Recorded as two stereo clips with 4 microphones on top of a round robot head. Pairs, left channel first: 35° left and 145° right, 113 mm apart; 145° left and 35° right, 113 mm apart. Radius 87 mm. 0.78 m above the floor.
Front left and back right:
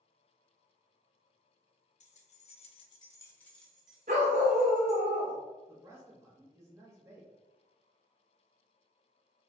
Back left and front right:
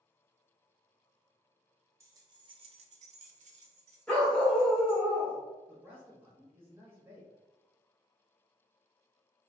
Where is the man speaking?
95° right, 0.7 m.